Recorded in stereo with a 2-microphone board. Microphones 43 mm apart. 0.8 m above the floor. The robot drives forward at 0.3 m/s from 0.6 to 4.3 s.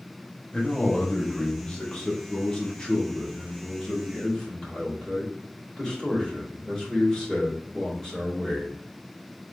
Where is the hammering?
No hammering in this recording.